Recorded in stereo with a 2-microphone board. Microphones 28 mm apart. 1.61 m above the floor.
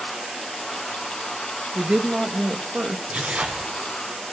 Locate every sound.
1.8 s a woman speaking: 40° right (ahead or behind), 1.6 m
3.1 s tearing paper: 60° right (ahead or behind), 5 m